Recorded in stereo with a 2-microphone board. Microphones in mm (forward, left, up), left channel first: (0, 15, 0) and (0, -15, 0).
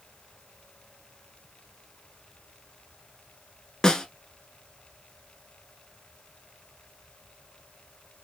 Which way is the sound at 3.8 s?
20° left (ahead or behind).